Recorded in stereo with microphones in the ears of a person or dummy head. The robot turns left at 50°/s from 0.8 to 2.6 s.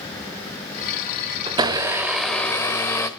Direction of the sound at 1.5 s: 145° right.